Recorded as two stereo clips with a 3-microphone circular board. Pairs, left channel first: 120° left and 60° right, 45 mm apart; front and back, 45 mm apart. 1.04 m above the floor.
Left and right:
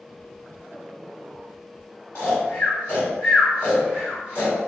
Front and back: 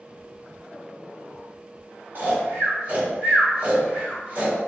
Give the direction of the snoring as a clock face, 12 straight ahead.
7 o'clock.